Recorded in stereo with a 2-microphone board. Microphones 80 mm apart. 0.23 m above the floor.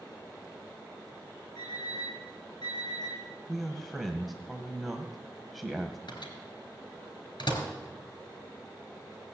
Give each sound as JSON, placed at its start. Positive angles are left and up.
{"t": 1.6, "sound": "an alarm clock", "side_deg": 60, "distance_m": 8.5}
{"t": 3.5, "sound": "a man speaking", "side_deg": 0, "distance_m": 1.3}
{"t": 6.1, "sound": "a microwave", "side_deg": 70, "distance_m": 3.5}